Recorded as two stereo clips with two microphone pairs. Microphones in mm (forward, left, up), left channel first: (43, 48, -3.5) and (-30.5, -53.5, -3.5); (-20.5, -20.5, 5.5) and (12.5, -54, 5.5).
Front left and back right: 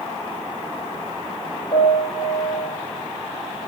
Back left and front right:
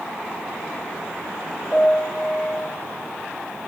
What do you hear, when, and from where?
1.7 s a piano: 70° left, 1.1 m